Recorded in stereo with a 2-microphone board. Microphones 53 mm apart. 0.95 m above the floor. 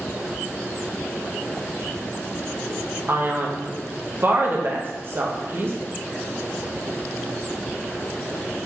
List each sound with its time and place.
3.1 s a man speaking: 40° right (ahead or behind), 0.7 m